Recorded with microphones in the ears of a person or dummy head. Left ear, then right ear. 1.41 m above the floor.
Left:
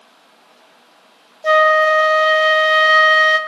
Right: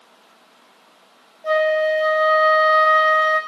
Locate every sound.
1.4 s a flute: 85° left, 0.9 m